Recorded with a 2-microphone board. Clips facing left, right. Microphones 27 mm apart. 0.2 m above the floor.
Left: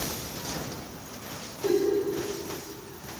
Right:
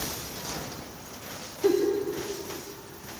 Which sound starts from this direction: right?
A giggle, at 1.6 s.